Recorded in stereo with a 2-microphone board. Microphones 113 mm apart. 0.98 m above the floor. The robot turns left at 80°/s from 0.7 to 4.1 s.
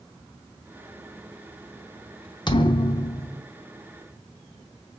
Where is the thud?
105° left, 0.7 m; by 3.4 s 30° left, 0.7 m.